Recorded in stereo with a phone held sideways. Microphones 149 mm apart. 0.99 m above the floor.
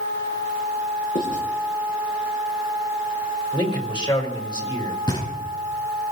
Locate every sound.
1.1 s writing: 70° left (ahead or behind), 9 m
3.5 s a man speaking: 30° left (ahead or behind), 4 m
5.1 s knocking: 30° left (ahead or behind), 4.5 m